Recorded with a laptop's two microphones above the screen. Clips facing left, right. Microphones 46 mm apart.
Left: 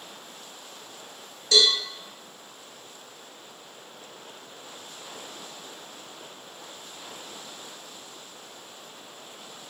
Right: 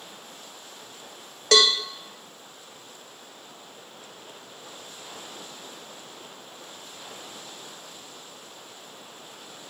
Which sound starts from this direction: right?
A cowbell, at 1.5 s.